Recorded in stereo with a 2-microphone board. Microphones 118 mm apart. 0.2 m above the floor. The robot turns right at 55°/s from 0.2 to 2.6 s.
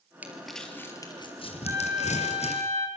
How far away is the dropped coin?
No dropped coin in this recording.